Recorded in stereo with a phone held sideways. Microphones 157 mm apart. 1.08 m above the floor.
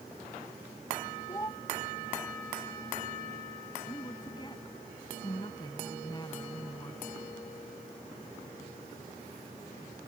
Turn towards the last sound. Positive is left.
turn(degrees=25)  # may be behind; listen again after turning